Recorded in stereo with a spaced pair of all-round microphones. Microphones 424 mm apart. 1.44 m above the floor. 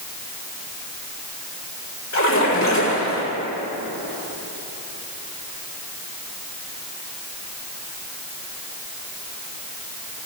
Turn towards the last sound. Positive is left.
turn(degrees=40)  # may be behind; listen again after turning